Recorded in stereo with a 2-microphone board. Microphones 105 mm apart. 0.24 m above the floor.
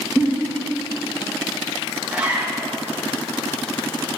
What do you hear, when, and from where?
0.2 s a giggle: 15° left (ahead or behind), 2.5 m
2.1 s a zipper: 10° right (ahead or behind), 1.6 m